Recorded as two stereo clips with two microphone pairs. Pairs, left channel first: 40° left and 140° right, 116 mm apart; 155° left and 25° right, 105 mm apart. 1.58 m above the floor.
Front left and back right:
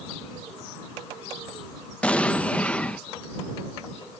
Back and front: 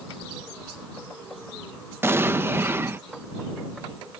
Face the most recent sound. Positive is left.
turn(degrees=-25)